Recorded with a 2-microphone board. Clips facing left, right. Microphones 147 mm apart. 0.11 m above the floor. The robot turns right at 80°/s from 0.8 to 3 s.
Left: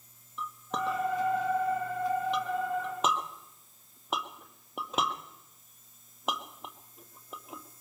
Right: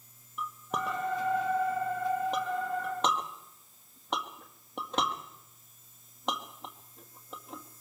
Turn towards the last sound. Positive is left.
turn(degrees=5)  # may be behind; listen again after turning